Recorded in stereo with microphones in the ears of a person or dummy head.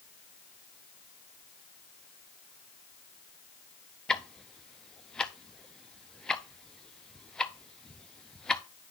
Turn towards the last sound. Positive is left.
turn(degrees=5)  # may be behind; listen again after turning